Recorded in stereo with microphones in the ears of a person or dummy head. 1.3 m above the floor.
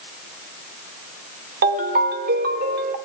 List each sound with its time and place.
1.6 s a ringtone: 50° right (ahead or behind), 1.9 m